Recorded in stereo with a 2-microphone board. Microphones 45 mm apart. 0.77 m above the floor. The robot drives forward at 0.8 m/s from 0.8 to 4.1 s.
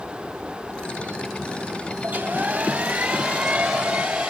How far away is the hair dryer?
About 0.8 m.